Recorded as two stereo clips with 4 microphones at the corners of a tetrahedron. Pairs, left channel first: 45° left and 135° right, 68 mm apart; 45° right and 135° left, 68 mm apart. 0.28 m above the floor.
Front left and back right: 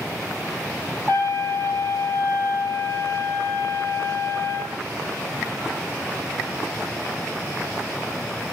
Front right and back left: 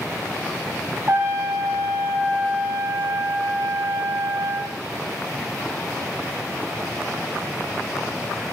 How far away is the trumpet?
About 3.5 m.